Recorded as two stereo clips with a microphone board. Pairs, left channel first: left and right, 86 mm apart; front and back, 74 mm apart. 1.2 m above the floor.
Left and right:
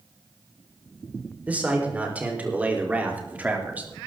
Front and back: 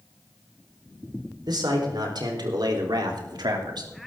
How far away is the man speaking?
About 4.5 m.